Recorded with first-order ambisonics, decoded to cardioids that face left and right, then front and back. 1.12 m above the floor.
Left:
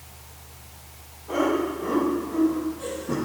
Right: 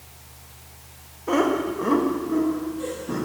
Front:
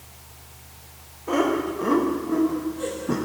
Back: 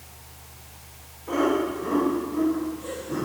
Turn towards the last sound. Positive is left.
turn(degrees=0)